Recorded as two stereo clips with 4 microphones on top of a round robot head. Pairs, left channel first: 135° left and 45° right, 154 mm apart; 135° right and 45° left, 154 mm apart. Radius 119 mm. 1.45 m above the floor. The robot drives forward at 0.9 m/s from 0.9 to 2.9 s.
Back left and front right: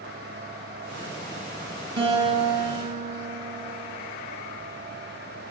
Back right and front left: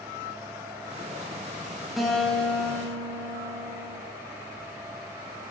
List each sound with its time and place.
2.0 s a guitar: 40° right, 2.5 m; by 4.0 s 60° right, 2 m